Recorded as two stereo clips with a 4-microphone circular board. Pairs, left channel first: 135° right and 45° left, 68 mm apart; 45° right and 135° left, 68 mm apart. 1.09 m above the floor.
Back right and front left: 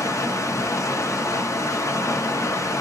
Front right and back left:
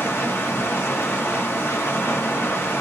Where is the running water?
95° right, 0.9 m.